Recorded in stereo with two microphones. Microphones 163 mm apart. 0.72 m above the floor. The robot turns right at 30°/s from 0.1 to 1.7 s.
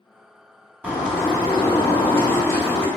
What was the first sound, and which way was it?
A bird, 10° right (ahead or behind).